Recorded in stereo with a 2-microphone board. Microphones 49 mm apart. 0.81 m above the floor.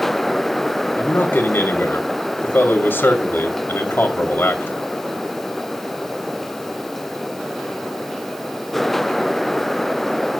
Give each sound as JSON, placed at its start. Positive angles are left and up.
{"t": 1.0, "sound": "a man speaking", "side_deg": 50, "distance_m": 2.0}